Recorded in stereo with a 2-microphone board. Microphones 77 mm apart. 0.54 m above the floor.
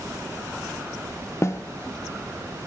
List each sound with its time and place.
1.4 s a snare drum: 35° left (ahead or behind), 0.9 m